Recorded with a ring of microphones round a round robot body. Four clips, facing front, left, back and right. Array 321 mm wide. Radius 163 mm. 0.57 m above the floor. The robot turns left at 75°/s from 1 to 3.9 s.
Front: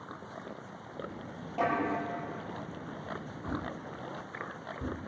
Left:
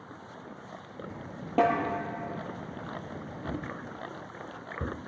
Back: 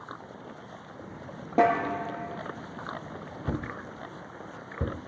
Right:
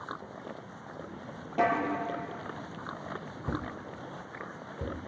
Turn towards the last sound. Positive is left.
turn(degrees=170)